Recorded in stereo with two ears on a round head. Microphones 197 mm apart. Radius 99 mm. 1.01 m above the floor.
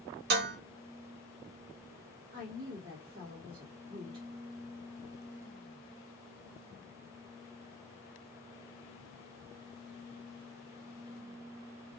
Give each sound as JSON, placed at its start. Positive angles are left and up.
{"t": 0.3, "sound": "dishes clattering", "side_deg": -50, "distance_m": 0.6}
{"t": 2.3, "sound": "a woman speaking", "side_deg": -50, "distance_m": 1.4}